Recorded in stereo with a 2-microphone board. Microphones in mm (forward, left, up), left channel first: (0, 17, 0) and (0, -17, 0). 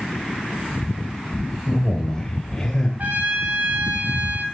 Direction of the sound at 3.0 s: 50° right (ahead or behind).